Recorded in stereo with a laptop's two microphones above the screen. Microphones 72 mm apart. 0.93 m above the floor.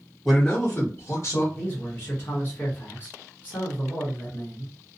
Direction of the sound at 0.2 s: 5° left (ahead or behind).